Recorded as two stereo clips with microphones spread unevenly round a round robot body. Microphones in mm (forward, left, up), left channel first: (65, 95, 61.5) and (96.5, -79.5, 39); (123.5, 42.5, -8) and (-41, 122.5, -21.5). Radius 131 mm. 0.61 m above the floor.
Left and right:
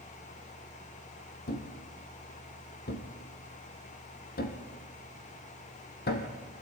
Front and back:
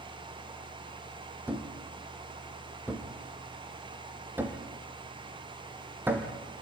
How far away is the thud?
About 3.5 m.